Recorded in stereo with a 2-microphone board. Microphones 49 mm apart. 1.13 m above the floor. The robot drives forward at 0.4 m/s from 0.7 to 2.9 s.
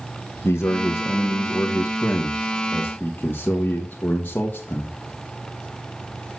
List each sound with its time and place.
0.4 s a man speaking: 60° left (ahead or behind), 1.2 m; by 4.9 s 40° left (ahead or behind), 1.6 m